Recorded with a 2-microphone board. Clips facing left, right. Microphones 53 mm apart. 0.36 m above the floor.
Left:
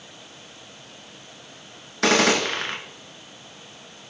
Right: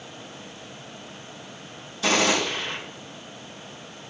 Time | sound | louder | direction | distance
2.0 | a gunshot | left 3 dB | 75° left (ahead or behind) | 0.7 m